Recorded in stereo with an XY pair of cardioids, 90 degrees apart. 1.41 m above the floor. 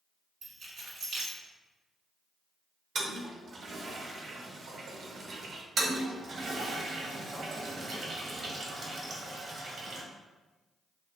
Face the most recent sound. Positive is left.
turn(degrees=-60)